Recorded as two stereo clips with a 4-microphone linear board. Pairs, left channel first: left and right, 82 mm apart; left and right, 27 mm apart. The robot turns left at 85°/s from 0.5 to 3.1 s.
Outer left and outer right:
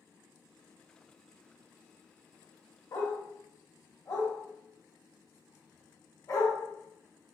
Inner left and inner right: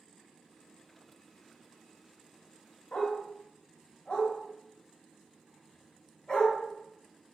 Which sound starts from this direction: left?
A dog barking, at 2.9 s.